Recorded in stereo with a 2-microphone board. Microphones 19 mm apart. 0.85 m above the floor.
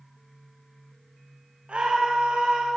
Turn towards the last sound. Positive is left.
turn(degrees=-75)  # may be behind; listen again after turning